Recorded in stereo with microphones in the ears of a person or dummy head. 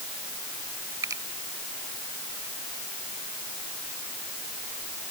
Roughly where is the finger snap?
Centre.